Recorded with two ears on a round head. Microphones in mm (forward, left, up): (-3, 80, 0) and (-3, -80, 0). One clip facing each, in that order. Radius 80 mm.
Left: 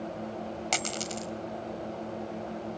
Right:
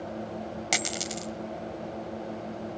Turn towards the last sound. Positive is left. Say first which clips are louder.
# right 1 dB
turn(degrees=-15)  # may be behind; listen again after turning